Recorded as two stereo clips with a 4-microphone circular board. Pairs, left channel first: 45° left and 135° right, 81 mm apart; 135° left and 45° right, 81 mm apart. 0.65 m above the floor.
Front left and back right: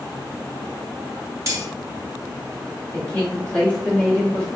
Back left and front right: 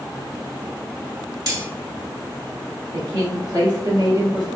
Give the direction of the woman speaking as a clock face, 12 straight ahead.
1 o'clock.